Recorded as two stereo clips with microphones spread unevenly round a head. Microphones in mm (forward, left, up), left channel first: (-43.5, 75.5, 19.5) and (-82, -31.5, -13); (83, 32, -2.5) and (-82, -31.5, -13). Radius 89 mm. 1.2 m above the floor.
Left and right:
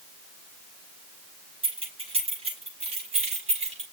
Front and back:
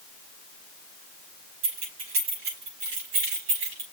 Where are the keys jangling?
150° right, 6.5 m; by 3.8 s 140° right, 6.5 m.